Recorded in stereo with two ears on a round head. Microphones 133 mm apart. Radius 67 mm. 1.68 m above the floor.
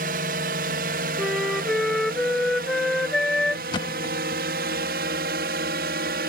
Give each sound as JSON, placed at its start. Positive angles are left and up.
{"t": 0.0, "sound": "a drone", "side_deg": -60}
{"t": 1.2, "sound": "a flute", "side_deg": 5}
{"t": 3.7, "sound": "a thud", "side_deg": 30}